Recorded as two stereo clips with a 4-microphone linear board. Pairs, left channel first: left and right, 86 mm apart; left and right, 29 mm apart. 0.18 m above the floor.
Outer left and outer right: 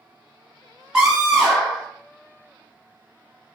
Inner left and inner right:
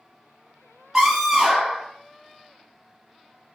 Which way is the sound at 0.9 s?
10° right (ahead or behind).